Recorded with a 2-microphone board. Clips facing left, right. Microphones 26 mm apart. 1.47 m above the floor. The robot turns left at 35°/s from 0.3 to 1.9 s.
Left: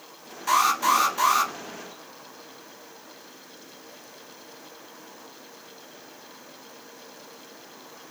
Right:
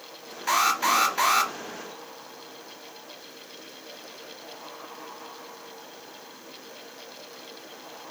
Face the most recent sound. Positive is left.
turn(degrees=-70)